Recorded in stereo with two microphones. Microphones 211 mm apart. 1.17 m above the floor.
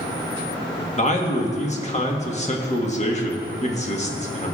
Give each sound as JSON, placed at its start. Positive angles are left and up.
{"t": 1.0, "sound": "a man speaking", "side_deg": 35, "distance_m": 1.6}